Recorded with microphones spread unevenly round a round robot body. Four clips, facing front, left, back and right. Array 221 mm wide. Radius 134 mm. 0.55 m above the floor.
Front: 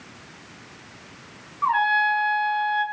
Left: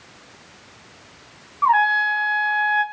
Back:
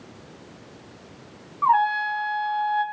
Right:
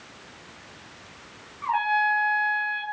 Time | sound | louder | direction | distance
1.6 | a trumpet | left 6 dB, back 1 dB | 125° left | 1.8 m